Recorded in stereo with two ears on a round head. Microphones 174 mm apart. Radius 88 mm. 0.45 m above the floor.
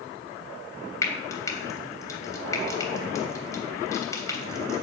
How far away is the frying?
About 3 m.